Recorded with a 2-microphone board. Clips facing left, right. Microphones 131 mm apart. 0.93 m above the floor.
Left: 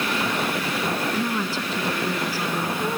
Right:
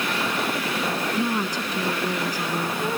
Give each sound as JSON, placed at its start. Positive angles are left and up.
{"t": 1.1, "sound": "a woman speaking", "side_deg": -15}